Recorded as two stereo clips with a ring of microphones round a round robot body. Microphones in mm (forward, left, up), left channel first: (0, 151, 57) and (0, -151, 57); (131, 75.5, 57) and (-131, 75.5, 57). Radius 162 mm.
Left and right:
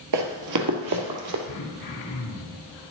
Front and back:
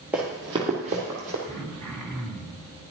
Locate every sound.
0.1 s running footsteps: 95° right, 1.4 m; by 1.4 s 120° right, 2 m
1.5 s throat clearing: 85° left, 3 m